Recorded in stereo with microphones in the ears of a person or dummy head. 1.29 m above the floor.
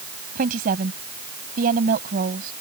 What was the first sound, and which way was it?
A woman speaking, 50° right (ahead or behind).